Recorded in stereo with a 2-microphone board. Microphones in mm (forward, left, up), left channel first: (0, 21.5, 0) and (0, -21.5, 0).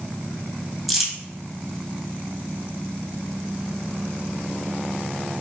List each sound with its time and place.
0.9 s crumpling: 5° right (ahead or behind), 1.5 m